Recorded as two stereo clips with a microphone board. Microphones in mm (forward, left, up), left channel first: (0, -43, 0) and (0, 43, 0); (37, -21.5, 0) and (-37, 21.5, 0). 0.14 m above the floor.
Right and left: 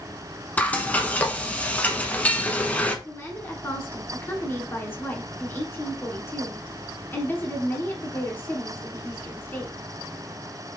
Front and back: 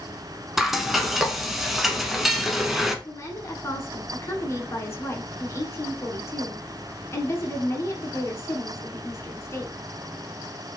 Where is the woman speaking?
50° right, 1.2 m.